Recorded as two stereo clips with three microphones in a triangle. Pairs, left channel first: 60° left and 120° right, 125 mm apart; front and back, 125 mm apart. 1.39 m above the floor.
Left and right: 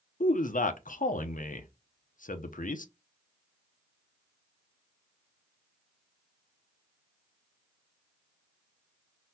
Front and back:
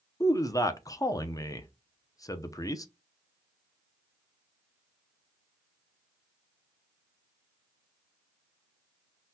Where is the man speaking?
65° left, 0.5 m.